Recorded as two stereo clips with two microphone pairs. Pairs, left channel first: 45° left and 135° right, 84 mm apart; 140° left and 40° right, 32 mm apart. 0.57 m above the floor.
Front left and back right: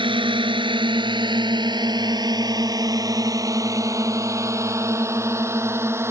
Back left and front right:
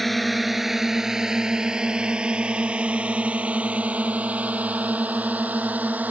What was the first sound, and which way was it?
A drone, 135° right.